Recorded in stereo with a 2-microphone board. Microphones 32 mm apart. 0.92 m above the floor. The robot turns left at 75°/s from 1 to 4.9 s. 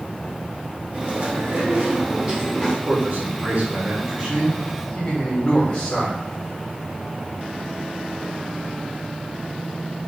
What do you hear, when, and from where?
0.9 s chewing: 60° right, 2.5 m; by 2.8 s 165° left, 2.5 m
2.9 s a man speaking: 45° right, 3 m; by 6.2 s 160° left, 3 m